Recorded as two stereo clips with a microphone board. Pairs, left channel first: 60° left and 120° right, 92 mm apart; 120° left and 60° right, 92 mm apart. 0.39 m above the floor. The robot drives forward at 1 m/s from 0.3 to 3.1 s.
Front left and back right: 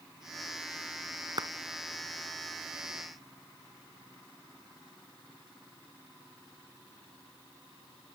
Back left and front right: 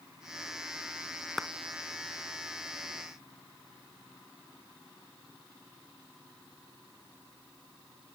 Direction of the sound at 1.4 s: 150° right.